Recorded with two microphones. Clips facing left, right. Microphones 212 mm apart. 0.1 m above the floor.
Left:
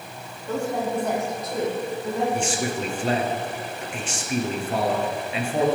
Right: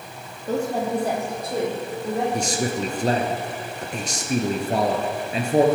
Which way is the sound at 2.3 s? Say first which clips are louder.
Right 1 dB; 40° right (ahead or behind).